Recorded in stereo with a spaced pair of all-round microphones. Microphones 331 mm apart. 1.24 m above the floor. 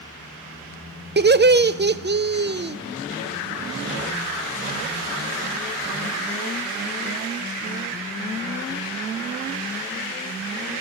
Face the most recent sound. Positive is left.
turn(degrees=-30)  # may be behind; listen again after turning